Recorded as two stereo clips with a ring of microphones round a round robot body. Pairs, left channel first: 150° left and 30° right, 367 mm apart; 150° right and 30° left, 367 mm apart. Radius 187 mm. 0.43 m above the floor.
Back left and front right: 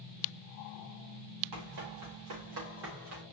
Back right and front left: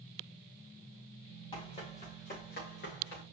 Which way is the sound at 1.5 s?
75° right.